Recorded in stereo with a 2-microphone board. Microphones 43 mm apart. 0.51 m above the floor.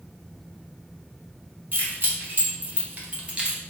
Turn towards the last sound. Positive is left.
turn(degrees=-20)  # may be behind; listen again after turning